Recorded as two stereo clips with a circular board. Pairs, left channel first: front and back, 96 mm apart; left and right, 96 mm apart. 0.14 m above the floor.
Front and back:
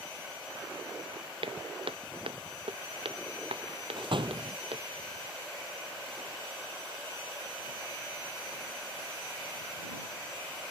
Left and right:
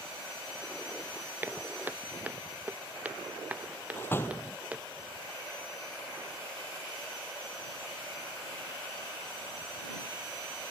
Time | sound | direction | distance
1.4 | footsteps | 160° right | ?
4.0 | a door slam | 155° left | ?